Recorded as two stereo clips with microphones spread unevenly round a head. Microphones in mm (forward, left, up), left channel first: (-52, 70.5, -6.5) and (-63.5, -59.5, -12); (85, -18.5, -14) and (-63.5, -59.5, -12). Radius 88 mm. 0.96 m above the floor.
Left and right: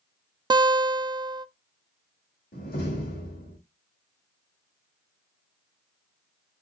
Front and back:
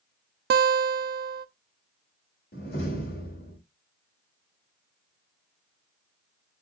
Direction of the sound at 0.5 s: 150° right.